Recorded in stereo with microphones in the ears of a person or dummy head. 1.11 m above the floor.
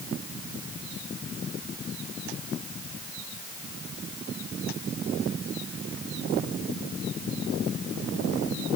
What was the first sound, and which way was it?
Only background noise.